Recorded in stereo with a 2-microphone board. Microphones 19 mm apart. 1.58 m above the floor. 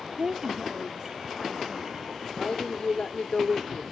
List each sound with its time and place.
0.2 s a woman speaking: 55° right (ahead or behind), 0.5 m; by 2.8 s 30° right (ahead or behind), 4.5 m
2.4 s a woman speaking: 80° left, 4.5 m